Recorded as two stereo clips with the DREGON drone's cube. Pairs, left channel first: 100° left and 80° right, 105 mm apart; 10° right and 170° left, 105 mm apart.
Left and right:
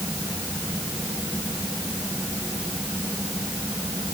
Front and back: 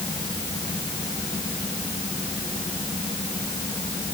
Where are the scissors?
I don't hear scissors.